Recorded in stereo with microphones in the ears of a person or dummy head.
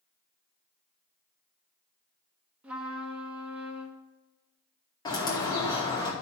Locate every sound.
2.6 s a trumpet: 10° right (ahead or behind), 1.0 m
5.0 s a bird: 20° left (ahead or behind), 2 m